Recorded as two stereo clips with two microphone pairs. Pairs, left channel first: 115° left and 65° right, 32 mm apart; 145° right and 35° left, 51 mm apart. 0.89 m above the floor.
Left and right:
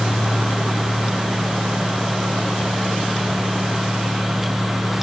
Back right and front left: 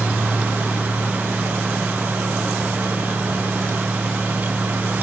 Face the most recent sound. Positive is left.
No sound to turn to.